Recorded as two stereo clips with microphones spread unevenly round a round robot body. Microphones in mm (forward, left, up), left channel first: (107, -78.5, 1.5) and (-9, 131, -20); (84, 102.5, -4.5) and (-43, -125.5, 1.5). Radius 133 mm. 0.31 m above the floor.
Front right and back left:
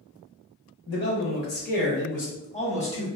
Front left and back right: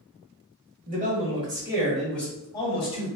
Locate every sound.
0.9 s a man speaking: 85° right, 1.1 m; by 3.1 s 5° left, 1.3 m